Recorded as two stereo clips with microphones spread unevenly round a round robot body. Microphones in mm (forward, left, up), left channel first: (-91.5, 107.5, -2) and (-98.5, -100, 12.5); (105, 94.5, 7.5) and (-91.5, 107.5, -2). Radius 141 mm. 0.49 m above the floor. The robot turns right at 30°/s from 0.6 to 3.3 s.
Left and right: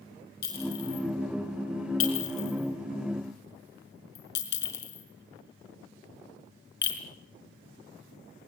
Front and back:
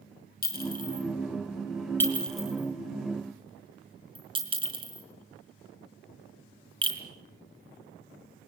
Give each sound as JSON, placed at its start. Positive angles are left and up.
{"t": 0.4, "sound": "a clink", "azimuth_deg": 35, "distance_m": 5.5}